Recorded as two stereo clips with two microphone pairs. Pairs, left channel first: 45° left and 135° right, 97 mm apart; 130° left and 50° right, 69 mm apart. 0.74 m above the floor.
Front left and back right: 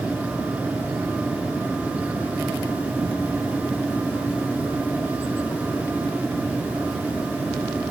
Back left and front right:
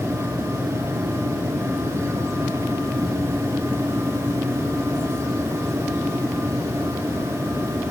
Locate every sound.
Only background noise.